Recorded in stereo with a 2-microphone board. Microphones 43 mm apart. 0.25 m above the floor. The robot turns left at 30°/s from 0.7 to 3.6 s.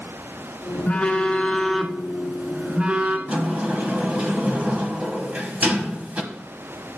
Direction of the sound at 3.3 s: 35° right (ahead or behind).